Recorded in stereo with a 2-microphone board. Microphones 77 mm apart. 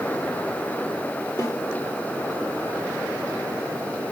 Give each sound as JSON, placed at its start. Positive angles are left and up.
{"t": 1.4, "sound": "a snare drum", "side_deg": 45, "distance_m": 5.5}